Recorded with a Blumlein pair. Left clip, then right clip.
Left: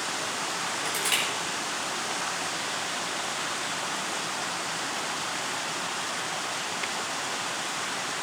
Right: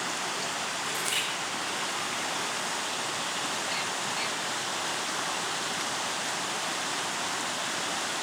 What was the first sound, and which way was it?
Crushing, 30° left.